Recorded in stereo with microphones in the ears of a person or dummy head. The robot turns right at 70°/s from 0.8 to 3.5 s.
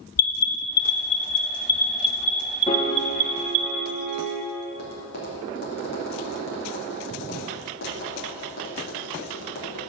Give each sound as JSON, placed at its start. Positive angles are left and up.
{"t": 0.2, "sound": "an alarm", "side_deg": 80, "distance_m": 1.1}
{"t": 2.7, "sound": "a piano", "azimuth_deg": 150, "distance_m": 1.0}
{"t": 4.7, "sound": "tapping", "side_deg": 50, "distance_m": 2.5}